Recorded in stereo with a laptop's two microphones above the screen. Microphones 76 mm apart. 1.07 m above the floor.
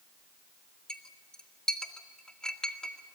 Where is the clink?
10° left (ahead or behind), 1.9 m.